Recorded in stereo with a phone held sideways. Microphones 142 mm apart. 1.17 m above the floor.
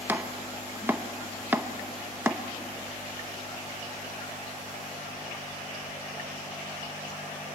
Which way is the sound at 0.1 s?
15° right (ahead or behind).